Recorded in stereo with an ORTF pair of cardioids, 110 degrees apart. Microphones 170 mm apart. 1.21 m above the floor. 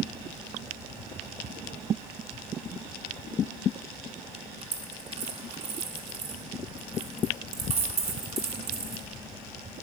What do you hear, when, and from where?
4.6 s a dropped coin: 35° right, 1.6 m